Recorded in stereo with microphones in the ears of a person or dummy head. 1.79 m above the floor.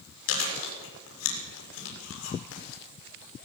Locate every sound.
0.3 s chewing: 85° left, 6.5 m